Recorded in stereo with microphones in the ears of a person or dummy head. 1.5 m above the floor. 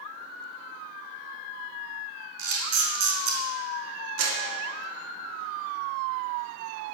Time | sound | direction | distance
2.4 | a camera shutter | 70° right (ahead or behind) | 3.5 m
4.2 | a clap | 85° right | 2.5 m